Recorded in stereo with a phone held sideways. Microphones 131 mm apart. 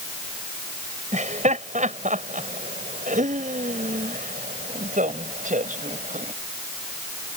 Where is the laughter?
65° right (ahead or behind); by 6.3 s 75° right (ahead or behind).